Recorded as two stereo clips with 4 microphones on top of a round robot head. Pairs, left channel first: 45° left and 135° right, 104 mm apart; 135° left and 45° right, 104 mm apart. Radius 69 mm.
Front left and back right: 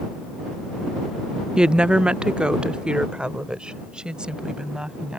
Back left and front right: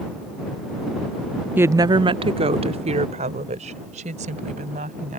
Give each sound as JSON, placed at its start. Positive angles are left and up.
{"t": 1.6, "sound": "a woman speaking", "azimuth_deg": -70}